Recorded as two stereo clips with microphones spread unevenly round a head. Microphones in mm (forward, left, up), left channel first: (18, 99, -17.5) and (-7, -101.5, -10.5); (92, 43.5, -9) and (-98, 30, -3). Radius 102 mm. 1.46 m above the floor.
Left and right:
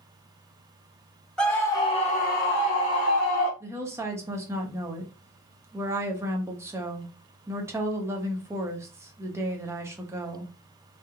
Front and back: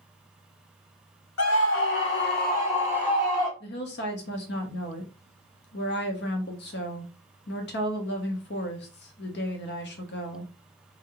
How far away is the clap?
I don't hear a clap.